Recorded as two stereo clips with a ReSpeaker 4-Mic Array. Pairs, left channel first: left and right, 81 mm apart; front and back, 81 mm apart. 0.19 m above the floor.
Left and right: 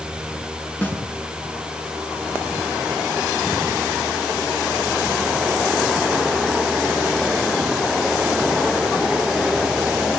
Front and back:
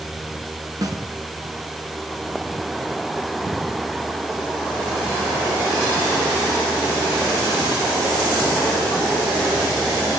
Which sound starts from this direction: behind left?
A snare drum, at 0.8 s.